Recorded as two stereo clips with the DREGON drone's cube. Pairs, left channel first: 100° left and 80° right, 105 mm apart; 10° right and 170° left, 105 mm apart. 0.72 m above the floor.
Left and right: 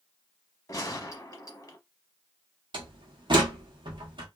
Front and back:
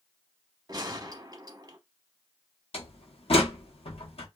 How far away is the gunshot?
About 0.7 m.